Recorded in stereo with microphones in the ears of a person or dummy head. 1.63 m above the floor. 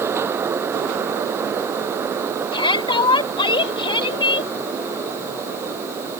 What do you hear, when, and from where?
2.5 s a shout: 30° left (ahead or behind)